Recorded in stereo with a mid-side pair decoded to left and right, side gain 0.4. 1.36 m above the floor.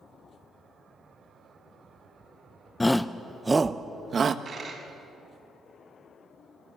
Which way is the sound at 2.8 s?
15° left.